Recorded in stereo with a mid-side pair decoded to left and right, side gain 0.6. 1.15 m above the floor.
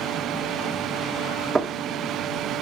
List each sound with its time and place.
1.6 s knocking: 20° right, 1.6 m